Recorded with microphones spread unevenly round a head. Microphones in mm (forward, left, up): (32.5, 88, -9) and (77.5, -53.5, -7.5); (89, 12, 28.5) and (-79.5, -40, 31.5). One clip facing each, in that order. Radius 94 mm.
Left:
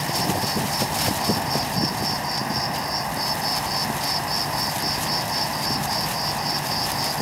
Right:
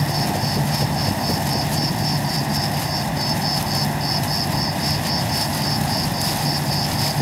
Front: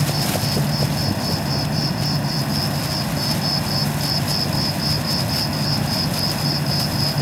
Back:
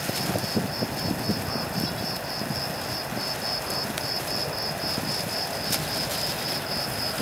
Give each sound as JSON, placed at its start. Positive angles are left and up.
{"t": 0.0, "sound": "an insect", "azimuth_deg": -10}